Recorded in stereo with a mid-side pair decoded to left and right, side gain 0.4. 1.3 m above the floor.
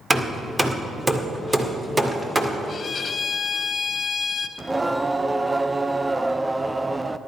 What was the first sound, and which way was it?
Hammering, 20° right.